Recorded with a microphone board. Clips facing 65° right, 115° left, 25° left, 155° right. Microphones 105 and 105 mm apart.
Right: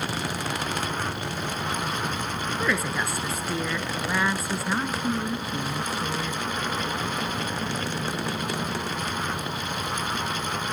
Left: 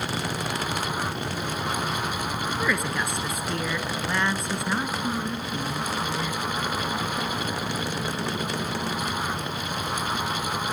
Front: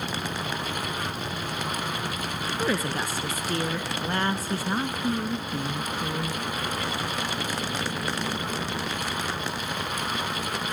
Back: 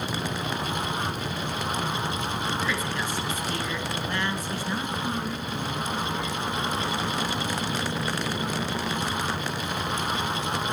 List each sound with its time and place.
2.6 s a woman speaking: 15° left, 1.2 m